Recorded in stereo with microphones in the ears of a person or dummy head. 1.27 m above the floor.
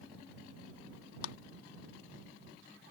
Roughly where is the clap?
Left.